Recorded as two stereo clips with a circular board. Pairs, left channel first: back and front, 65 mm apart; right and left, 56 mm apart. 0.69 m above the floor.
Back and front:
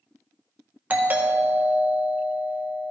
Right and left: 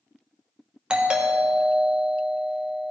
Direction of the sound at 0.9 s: 30° left.